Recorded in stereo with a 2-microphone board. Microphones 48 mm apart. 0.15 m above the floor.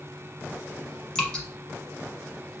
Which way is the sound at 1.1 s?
15° left (ahead or behind).